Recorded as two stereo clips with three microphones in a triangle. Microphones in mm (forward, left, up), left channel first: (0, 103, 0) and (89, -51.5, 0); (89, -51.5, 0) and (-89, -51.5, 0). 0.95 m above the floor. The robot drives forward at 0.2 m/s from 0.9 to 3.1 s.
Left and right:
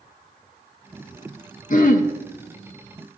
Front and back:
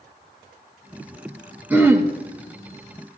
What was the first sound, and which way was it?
Throat clearing, 105° left.